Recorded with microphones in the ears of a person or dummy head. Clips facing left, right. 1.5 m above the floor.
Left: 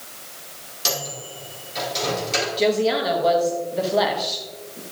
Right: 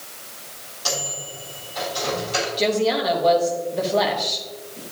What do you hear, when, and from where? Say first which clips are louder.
0.8 s a microwave: even; 35° left (ahead or behind), 3.5 m
2.6 s a woman speaking: left 1 dB; 5° left (ahead or behind), 1.0 m